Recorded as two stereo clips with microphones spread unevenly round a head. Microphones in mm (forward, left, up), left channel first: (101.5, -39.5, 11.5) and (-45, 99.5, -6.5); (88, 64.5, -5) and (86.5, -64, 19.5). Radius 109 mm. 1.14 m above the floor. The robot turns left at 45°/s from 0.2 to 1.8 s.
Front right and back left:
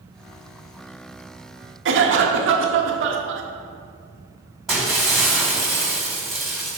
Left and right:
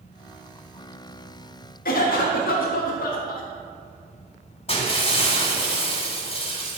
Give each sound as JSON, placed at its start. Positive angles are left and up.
{"t": 1.9, "sound": "a cough", "azimuth_deg": 110, "distance_m": 1.3}
{"t": 4.7, "sound": "breaking glass", "azimuth_deg": 45, "distance_m": 2.5}